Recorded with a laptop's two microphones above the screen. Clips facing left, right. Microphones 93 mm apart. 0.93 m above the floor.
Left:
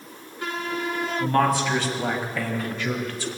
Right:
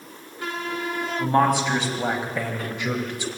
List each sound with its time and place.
1.2 s a man speaking: 20° right (ahead or behind), 6.5 m